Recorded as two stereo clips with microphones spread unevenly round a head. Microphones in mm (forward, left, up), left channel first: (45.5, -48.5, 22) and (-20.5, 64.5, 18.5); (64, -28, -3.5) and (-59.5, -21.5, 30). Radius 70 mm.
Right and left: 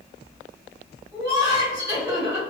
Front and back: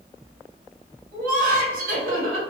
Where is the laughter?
175° right, 1.5 m.